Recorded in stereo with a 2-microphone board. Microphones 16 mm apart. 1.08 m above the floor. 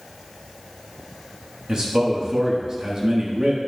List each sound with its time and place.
1.7 s a man speaking: 45° right (ahead or behind), 1.3 m